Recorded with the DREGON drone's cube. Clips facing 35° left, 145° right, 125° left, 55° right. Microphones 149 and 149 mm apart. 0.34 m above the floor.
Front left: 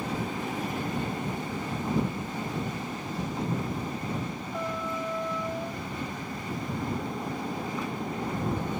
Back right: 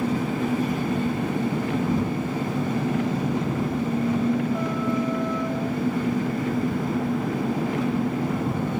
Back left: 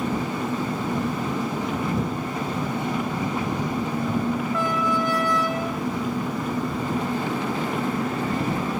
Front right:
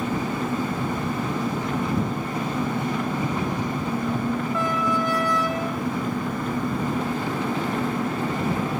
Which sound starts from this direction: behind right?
An engine running, at 0.0 s.